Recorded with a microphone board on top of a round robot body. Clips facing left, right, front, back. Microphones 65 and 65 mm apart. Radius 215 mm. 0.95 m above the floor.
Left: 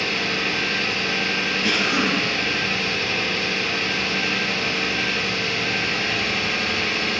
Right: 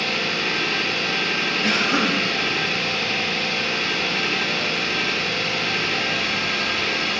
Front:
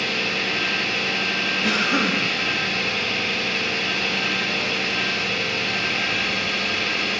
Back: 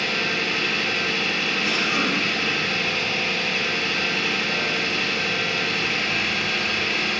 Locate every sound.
0.0 s an engine running: 90° right, 3 m
1.6 s a cough: 35° right, 1.9 m